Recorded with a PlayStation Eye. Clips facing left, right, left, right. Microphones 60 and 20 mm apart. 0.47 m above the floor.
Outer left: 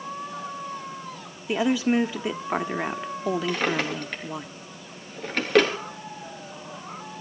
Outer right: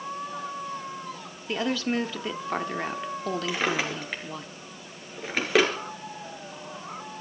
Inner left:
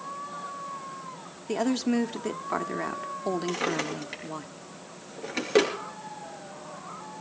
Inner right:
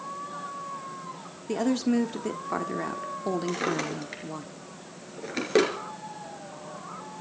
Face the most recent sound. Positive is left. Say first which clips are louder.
# outer left 2 dB, even
turn(degrees=-5)  # may be behind; listen again after turning